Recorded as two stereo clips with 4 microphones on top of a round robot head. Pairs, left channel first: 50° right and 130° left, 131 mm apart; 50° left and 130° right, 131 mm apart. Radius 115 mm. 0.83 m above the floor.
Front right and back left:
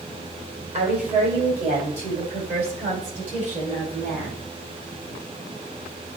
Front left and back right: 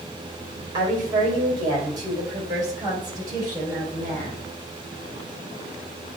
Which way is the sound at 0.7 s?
170° left.